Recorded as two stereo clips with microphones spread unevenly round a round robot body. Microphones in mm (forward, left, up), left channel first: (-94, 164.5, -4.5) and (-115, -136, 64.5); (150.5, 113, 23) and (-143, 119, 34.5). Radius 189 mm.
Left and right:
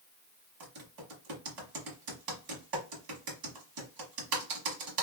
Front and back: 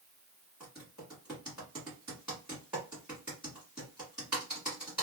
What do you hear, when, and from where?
0.6 s typing on a keyboard: 95° right, 1.3 m